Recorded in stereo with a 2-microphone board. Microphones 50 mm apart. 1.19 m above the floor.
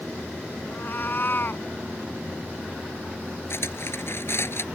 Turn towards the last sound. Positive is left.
turn(degrees=55)  # may be behind; listen again after turning